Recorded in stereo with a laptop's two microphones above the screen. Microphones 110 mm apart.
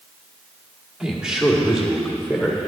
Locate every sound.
1.0 s a man speaking: 5° right (ahead or behind), 1.9 m; by 2.7 s centre (ahead or behind), 3 m